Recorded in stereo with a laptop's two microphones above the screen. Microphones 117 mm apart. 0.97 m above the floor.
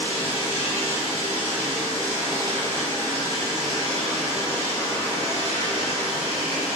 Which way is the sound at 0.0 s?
60° left (ahead or behind).